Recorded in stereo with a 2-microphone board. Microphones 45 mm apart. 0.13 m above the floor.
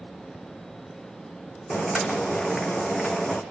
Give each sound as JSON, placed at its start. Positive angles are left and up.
{"t": 1.7, "sound": "boiling", "side_deg": 0, "distance_m": 2.5}